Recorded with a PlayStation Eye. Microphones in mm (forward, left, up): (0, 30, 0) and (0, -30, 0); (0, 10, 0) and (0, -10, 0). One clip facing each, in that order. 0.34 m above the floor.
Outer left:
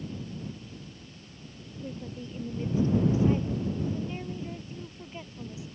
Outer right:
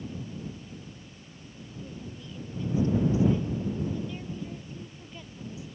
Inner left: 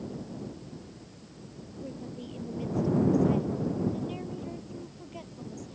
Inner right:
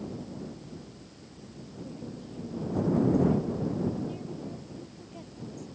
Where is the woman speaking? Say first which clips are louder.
Outer left 5 dB, inner left 2 dB; 40° left (ahead or behind); by 5.8 s 20° left (ahead or behind).